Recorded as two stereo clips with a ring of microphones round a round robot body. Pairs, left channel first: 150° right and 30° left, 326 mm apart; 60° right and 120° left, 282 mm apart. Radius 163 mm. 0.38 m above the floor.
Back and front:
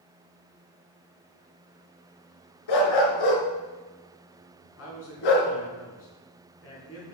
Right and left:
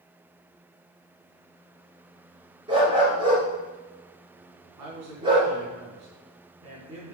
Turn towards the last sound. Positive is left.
turn(degrees=160)